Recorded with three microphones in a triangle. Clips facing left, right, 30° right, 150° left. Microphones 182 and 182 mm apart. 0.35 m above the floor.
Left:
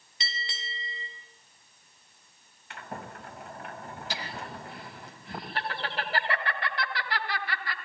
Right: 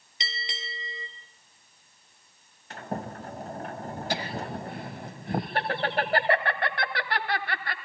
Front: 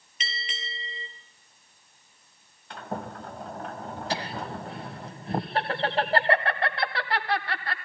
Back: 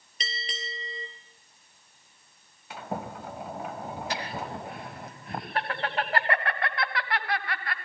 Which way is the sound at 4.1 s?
85° right.